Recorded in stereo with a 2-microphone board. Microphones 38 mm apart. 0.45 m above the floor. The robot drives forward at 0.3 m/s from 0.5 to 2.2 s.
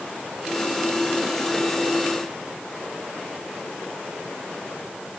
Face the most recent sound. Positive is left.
No sound to turn to.